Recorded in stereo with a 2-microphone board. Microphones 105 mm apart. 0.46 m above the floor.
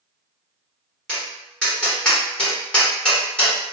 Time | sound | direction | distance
1.1 | tapping | 10° left (ahead or behind) | 1.3 m